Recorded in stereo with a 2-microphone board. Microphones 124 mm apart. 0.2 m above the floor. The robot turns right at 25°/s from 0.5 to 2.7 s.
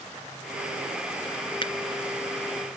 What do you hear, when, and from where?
1.6 s a finger snap: 40° left (ahead or behind); by 1.7 s 45° left (ahead or behind)